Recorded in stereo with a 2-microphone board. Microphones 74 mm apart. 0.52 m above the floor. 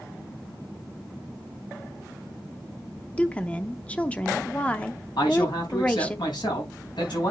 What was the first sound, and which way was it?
A woman speaking, 20° left (ahead or behind).